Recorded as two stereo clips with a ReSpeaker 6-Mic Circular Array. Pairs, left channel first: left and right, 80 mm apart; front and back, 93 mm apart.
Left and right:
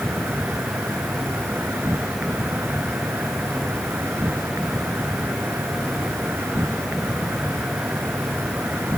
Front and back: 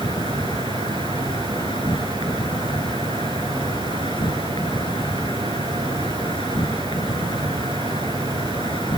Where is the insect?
30° right.